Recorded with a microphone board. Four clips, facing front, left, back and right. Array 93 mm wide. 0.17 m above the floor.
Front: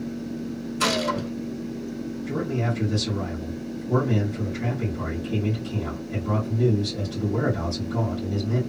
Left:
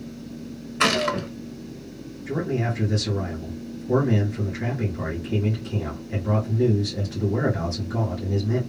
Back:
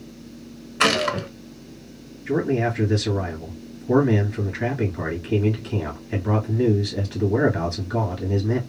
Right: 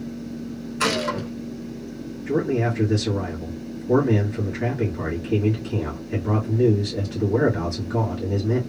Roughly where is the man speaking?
Behind.